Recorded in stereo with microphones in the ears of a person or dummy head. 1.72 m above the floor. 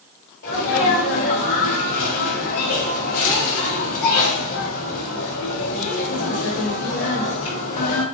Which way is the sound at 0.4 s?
75° left (ahead or behind).